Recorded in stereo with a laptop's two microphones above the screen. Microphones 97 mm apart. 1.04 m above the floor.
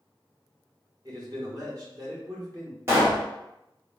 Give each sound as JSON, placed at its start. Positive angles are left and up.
{"t": 1.1, "sound": "a man speaking", "side_deg": -45, "distance_m": 1.2}
{"t": 2.9, "sound": "a pop", "side_deg": -30, "distance_m": 1.0}